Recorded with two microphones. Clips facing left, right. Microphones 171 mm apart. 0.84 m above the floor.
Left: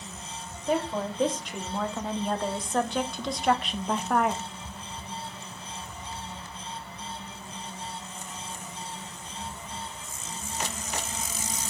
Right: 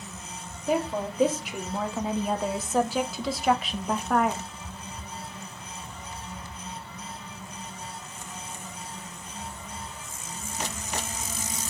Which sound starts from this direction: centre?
A woman speaking, at 0.7 s.